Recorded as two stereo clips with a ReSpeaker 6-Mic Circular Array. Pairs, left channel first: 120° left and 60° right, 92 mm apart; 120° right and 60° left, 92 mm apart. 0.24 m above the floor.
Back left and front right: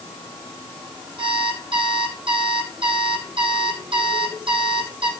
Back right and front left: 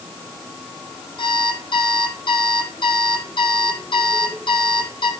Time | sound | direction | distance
1.2 | an alarm clock | 85° right | 3.5 m